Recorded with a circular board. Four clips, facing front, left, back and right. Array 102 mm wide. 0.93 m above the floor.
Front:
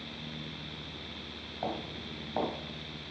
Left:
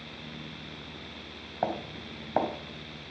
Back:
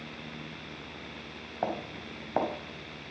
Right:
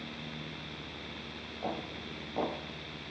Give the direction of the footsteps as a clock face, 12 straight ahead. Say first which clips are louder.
Left 6 dB, back 3 dB; 8 o'clock.